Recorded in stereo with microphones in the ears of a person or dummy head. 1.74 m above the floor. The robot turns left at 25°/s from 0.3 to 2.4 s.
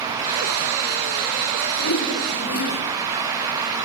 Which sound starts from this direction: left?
A whoosh, at 1.8 s.